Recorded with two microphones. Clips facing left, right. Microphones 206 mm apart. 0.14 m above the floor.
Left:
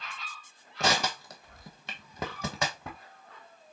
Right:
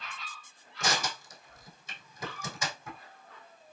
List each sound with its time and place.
0.8 s crushing: 70° left (ahead or behind), 1.0 m